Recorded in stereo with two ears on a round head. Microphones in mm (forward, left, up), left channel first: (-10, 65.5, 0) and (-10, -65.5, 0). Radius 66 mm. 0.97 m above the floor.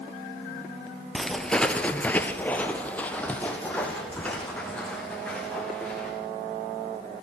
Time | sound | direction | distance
1.1 | footsteps | 5° left (ahead or behind) | 1.2 m